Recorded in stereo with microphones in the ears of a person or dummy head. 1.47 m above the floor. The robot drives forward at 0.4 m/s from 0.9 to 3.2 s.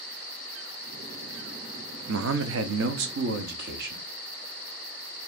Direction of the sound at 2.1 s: 60° right (ahead or behind).